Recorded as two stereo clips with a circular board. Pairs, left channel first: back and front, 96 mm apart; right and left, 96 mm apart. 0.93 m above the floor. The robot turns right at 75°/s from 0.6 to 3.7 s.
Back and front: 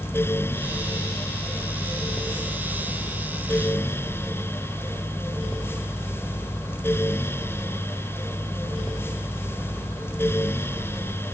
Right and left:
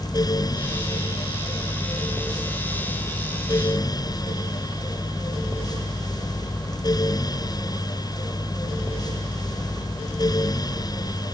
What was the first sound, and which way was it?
Only background noise.